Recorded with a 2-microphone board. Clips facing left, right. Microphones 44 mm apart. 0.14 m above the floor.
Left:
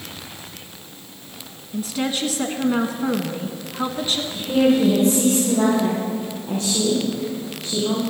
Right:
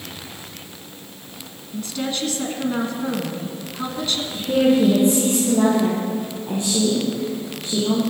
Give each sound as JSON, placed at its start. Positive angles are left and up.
{"t": 1.7, "sound": "a woman speaking", "side_deg": 15, "distance_m": 1.1}
{"t": 4.3, "sound": "a woman speaking", "side_deg": -25, "distance_m": 3.5}